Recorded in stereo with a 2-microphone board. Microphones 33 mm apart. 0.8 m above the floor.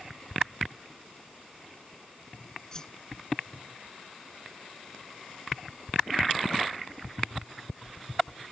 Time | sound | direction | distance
2.7 | a whoosh | 20° left (ahead or behind) | ?